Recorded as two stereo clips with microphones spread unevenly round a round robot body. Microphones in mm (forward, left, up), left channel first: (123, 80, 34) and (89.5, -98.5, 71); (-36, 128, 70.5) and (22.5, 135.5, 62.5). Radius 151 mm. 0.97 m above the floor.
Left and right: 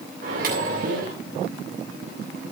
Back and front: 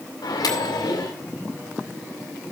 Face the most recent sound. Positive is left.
turn(degrees=-160)